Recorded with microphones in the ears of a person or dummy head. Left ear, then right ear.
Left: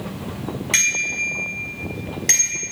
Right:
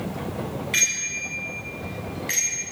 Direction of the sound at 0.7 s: 35° left (ahead or behind).